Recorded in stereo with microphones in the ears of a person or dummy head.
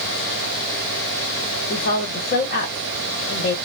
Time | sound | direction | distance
1.7 | a woman speaking | 45° left (ahead or behind) | 0.9 m